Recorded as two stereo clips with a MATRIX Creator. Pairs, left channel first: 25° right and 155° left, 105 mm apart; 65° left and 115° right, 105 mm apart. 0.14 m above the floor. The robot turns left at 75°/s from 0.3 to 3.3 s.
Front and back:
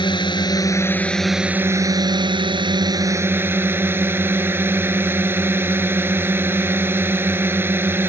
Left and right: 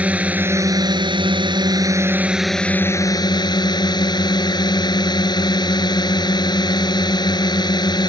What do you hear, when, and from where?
0.0 s a drone: 40° right; by 8.1 s 95° left